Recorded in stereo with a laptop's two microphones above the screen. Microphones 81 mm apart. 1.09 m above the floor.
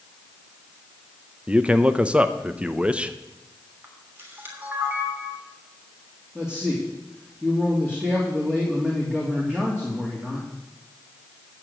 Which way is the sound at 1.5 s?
15° right (ahead or behind).